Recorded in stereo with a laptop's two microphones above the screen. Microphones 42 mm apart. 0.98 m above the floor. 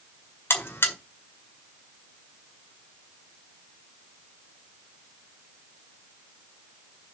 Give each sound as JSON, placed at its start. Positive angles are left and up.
{"t": 0.5, "sound": "a buzzer", "side_deg": 70, "distance_m": 1.8}